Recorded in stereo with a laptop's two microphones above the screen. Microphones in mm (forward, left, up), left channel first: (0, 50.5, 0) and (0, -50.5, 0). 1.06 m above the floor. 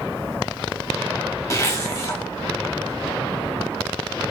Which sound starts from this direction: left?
A zipper, at 1.5 s.